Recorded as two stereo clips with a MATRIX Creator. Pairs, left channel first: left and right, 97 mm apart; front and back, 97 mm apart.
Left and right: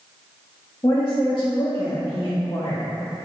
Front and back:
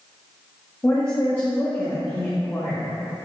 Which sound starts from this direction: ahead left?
A woman speaking, at 0.8 s.